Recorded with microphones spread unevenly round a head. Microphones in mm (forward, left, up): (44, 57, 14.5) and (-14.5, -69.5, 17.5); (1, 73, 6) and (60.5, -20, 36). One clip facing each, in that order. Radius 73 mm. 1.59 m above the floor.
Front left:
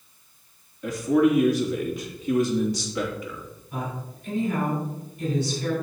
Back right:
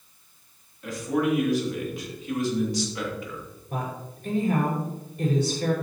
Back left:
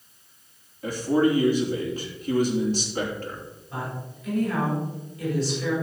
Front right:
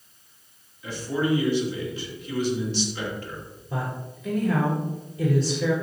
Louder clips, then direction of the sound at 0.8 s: Front left 5 dB, back left 5 dB; 70° left.